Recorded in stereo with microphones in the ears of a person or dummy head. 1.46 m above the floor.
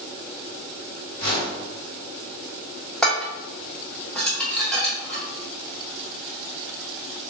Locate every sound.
1.2 s a whoosh: 50° left (ahead or behind), 2.0 m
3.0 s dishes clattering: centre (ahead or behind), 0.6 m